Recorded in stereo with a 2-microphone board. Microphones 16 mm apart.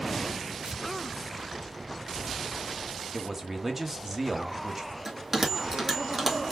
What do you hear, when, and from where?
0.6 s tearing paper: 50° right (ahead or behind), 2.5 m
3.1 s a man speaking: 30° right (ahead or behind), 1.2 m
5.0 s a bell: 15° right (ahead or behind), 1.8 m